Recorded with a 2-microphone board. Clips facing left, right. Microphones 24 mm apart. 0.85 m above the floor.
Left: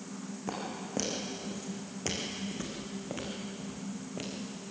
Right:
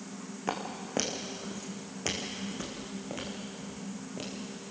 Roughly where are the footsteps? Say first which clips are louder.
Right 3 dB; right.